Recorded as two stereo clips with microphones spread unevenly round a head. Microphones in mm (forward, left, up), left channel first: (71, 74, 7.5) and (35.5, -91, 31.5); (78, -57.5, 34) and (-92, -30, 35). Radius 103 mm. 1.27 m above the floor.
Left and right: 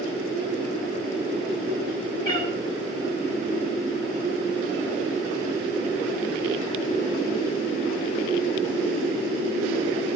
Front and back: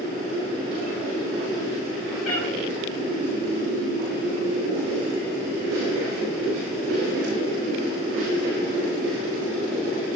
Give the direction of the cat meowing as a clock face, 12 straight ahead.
12 o'clock.